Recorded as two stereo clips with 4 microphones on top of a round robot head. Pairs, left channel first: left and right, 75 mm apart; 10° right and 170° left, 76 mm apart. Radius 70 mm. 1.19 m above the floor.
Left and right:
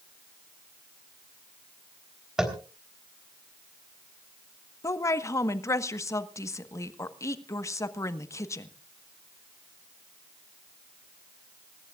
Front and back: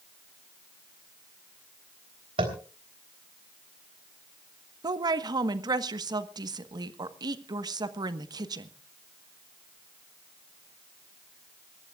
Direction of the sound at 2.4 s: 175° right.